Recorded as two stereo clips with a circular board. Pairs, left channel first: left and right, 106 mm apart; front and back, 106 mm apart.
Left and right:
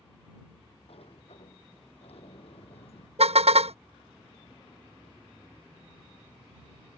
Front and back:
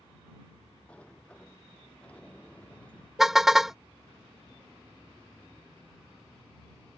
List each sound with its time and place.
0.9 s a sliding door: 80° left
3.2 s a car horn: 95° right